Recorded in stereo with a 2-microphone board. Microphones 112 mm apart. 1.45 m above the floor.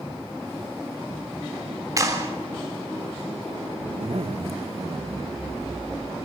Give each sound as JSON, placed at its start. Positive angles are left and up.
{"t": 2.0, "sound": "a clap", "side_deg": -35, "distance_m": 3.5}
{"t": 3.8, "sound": "a zipper", "side_deg": -70, "distance_m": 1.2}